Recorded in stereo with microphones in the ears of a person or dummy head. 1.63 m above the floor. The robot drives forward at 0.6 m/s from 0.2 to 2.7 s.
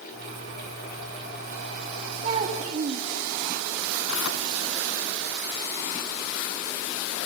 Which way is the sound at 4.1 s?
70° left (ahead or behind).